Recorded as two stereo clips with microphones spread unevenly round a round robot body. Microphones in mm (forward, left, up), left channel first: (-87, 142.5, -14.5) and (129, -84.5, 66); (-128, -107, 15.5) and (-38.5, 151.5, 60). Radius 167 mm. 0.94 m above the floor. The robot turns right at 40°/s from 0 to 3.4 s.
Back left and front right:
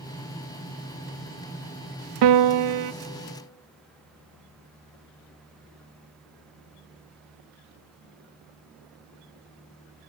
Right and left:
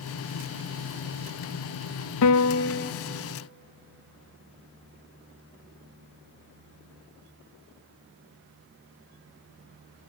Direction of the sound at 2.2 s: 75° right.